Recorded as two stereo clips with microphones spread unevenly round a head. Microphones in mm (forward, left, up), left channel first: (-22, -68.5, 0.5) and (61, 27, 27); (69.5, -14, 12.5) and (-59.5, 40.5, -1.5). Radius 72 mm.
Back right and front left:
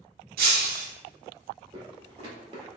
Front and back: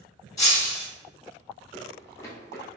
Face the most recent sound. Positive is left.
turn(degrees=35)